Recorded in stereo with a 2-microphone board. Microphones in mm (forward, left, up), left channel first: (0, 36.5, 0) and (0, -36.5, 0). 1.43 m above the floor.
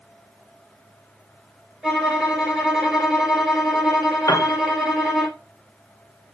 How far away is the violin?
About 4 m.